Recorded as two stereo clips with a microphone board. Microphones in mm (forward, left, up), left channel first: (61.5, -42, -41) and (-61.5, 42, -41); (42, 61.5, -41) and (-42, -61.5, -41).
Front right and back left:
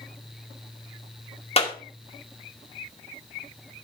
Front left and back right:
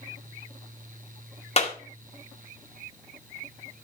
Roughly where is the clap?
Ahead.